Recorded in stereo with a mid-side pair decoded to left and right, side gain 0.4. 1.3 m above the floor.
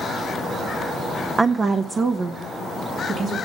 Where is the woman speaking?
35° right, 0.5 m; by 3.4 s 65° right, 2.0 m.